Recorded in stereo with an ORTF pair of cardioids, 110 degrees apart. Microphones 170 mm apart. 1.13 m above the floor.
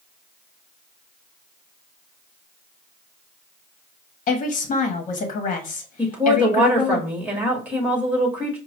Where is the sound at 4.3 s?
45° left, 1.3 m.